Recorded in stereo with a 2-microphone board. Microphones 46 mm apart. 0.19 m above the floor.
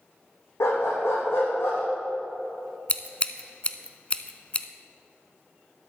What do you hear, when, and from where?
0.6 s a dog barking: 75° left (ahead or behind), 3.5 m; by 1.8 s 60° left (ahead or behind), 3.5 m
2.9 s scissors: 30° left (ahead or behind), 0.6 m